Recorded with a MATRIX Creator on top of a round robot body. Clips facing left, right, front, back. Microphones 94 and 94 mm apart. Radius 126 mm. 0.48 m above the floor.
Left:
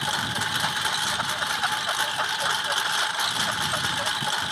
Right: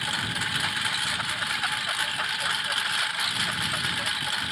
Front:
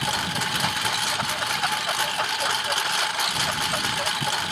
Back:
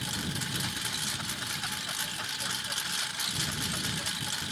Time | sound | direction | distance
0.0 | a lawn mower | 25° left | ?